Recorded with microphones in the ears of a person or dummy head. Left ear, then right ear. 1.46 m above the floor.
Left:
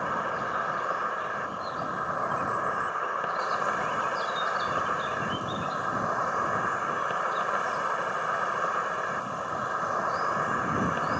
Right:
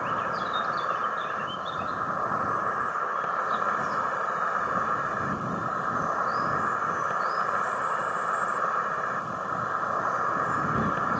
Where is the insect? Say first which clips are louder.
Right 1 dB; 15° left (ahead or behind).